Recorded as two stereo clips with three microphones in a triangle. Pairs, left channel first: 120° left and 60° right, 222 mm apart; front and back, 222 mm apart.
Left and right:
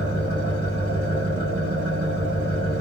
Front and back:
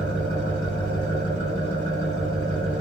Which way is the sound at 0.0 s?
120° left.